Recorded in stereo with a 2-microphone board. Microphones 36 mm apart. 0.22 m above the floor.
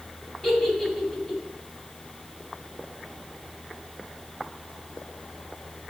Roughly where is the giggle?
Centre.